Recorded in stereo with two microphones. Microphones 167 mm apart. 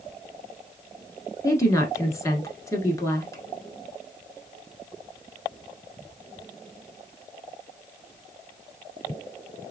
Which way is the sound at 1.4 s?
20° left (ahead or behind).